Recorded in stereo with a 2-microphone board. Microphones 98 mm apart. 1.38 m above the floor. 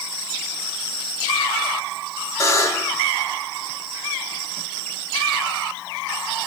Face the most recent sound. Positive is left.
turn(degrees=30)  # may be behind; listen again after turning